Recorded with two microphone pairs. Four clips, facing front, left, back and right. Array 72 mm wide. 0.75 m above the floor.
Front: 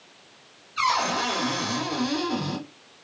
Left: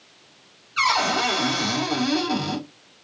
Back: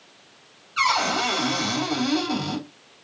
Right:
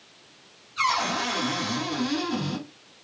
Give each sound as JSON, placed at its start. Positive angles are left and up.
{"t": 0.8, "sound": "a cupboard door", "azimuth_deg": 130, "distance_m": 3.0}